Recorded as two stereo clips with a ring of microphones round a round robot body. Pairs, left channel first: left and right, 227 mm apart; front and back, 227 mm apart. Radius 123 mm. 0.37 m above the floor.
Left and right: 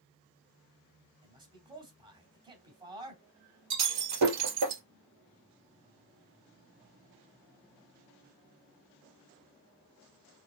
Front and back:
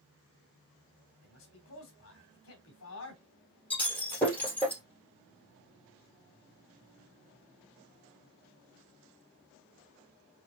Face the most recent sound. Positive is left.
turn(degrees=-85)